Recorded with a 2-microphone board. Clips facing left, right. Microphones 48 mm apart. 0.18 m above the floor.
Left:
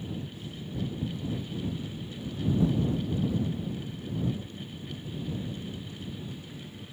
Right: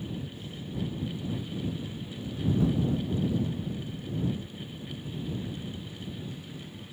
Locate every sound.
Only background noise.